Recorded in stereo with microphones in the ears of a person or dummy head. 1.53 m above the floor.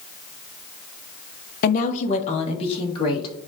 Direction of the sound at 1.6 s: 45° left (ahead or behind).